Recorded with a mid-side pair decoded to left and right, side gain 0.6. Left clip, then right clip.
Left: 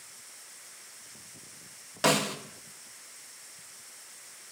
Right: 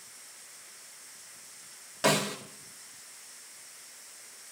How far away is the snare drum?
About 1.3 m.